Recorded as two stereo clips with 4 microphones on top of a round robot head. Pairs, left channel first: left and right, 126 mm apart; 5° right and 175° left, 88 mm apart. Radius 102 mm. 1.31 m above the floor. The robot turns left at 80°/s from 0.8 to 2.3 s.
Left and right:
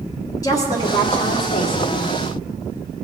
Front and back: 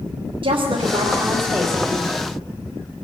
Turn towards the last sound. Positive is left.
turn(degrees=35)